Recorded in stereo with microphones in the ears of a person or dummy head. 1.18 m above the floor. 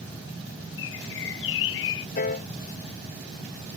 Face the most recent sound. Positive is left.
turn(degrees=45)  # may be behind; listen again after turning